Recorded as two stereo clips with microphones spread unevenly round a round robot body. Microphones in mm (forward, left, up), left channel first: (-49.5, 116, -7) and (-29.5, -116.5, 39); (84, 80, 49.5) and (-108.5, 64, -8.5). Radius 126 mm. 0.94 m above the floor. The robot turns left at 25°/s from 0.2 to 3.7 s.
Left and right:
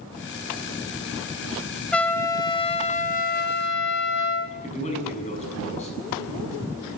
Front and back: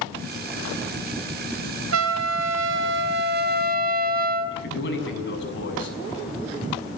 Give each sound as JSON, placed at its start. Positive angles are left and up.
{"t": 1.9, "sound": "a trumpet", "azimuth_deg": -175, "distance_m": 1.6}
{"t": 4.5, "sound": "a man speaking", "azimuth_deg": 30, "distance_m": 6.5}